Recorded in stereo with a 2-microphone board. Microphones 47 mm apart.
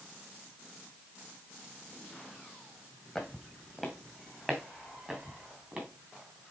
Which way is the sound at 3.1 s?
5° left (ahead or behind).